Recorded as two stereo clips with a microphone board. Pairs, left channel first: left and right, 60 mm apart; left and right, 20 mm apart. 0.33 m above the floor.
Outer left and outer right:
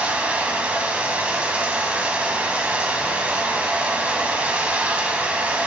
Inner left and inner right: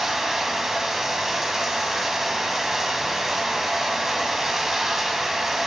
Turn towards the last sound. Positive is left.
turn(degrees=-20)  # may be behind; listen again after turning